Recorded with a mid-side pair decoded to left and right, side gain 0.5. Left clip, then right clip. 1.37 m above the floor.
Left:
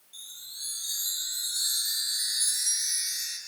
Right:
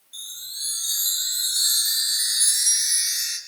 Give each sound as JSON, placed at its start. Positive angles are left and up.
{"t": 0.1, "sound": "a chime", "azimuth_deg": -55, "distance_m": 5.0}